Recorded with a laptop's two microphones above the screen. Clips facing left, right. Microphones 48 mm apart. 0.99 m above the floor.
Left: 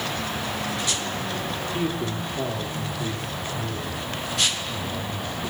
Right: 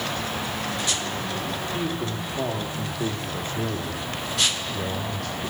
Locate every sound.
1.7 s a man speaking: 10° left (ahead or behind), 2.5 m; by 5.4 s 75° right (ahead or behind), 4 m